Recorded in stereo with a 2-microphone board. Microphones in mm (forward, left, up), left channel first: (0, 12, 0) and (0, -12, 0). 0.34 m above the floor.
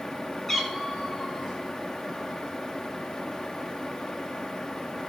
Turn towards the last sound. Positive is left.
turn(degrees=30)  # may be behind; listen again after turning